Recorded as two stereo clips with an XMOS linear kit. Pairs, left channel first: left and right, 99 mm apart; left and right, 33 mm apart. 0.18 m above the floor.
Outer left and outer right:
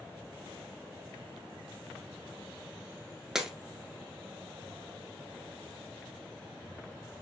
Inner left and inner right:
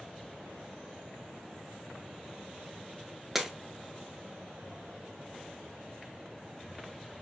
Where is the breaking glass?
5° right (ahead or behind), 0.7 m.